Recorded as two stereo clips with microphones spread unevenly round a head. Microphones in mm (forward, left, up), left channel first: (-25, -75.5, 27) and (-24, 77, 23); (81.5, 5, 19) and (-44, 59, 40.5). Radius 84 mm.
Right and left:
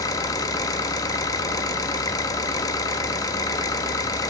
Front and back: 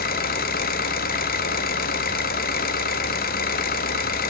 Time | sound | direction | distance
0.0 | an engine running | 20° right | 1.4 m